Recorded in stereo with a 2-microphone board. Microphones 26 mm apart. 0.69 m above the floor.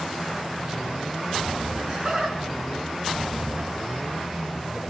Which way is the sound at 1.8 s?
30° right (ahead or behind).